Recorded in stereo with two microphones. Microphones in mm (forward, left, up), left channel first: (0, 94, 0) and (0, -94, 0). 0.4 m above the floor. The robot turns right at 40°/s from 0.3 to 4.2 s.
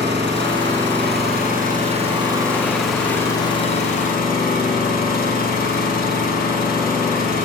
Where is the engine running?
105° right, 3.5 m; by 7.5 s 55° left, 3.5 m.